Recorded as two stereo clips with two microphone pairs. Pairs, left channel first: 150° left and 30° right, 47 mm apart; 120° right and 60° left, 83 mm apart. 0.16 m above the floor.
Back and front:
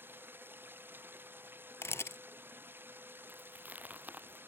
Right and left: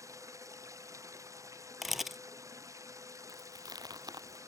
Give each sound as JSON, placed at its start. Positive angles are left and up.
{"t": 0.0, "sound": "running water", "azimuth_deg": 5}
{"t": 1.8, "sound": "a camera shutter", "azimuth_deg": 145}
{"t": 3.3, "sound": "chewing", "azimuth_deg": 20}